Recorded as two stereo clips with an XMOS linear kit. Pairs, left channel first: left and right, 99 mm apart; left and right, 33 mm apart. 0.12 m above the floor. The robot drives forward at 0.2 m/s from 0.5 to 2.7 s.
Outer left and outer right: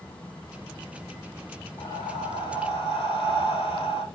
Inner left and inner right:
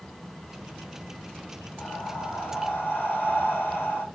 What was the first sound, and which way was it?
Breathing, 65° left (ahead or behind).